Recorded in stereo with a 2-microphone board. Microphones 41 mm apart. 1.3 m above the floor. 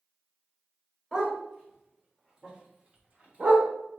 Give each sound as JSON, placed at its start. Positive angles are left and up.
{"t": 1.1, "sound": "a dog barking", "side_deg": -10, "distance_m": 2.0}